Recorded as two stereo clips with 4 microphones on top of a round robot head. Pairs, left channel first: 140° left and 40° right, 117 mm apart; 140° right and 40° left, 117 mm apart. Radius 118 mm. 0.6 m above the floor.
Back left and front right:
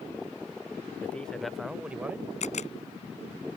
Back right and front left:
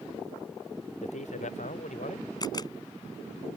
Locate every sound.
1.0 s a man speaking: 145° right; by 2.3 s 115° right
2.4 s a camera shutter: 165° left